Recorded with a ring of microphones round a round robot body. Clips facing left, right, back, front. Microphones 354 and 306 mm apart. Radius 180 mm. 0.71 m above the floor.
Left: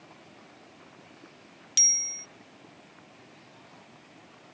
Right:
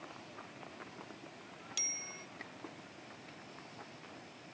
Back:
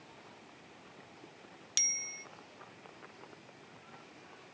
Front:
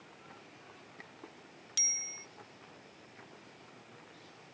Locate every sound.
1.8 s a bicycle bell: 135° left